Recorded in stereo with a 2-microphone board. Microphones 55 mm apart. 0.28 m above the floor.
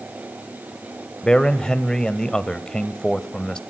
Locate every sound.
1.2 s a man speaking: 15° left (ahead or behind), 1.0 m